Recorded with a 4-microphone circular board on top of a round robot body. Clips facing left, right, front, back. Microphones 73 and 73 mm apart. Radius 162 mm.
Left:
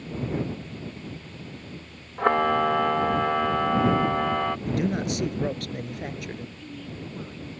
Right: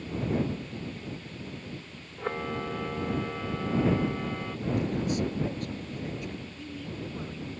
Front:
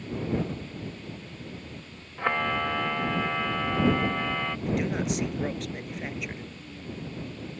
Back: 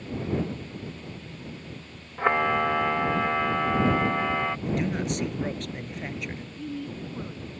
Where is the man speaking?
85° left.